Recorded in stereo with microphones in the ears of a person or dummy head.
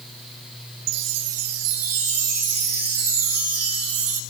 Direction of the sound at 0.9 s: 80° right.